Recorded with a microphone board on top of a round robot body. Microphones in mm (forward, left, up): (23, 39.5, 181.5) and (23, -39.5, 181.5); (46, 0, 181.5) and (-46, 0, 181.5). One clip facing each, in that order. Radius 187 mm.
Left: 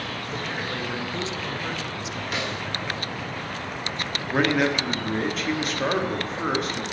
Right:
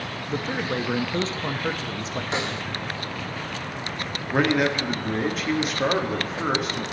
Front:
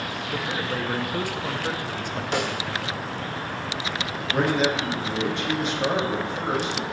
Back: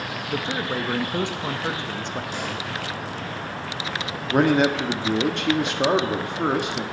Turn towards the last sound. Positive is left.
turn(degrees=-175)